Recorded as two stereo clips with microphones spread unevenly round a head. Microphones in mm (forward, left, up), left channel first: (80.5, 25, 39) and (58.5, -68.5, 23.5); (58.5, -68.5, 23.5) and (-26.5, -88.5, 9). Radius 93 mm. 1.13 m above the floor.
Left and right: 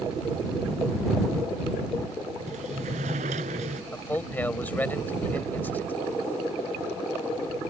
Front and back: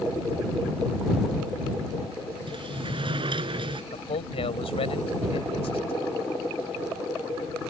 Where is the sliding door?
140° right.